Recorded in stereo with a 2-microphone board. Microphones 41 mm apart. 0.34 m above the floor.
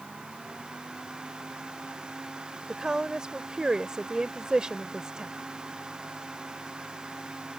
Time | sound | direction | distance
2.7 | a woman speaking | 20° right (ahead or behind) | ?